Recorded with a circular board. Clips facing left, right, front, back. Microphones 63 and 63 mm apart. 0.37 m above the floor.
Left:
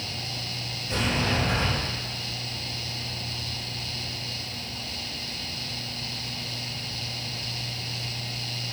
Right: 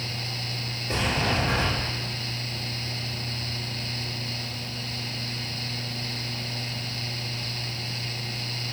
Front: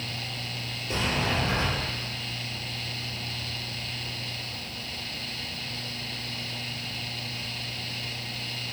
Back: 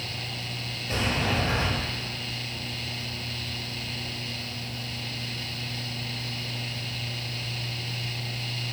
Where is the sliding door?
135° right, 1.9 m.